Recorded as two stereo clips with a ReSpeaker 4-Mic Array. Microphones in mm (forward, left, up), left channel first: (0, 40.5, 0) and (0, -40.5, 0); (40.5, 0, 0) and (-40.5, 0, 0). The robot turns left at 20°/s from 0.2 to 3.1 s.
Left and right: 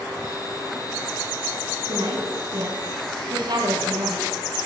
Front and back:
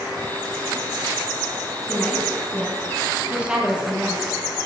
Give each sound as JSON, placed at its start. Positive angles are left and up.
{"t": 1.9, "sound": "a woman speaking", "azimuth_deg": -80, "distance_m": 6.5}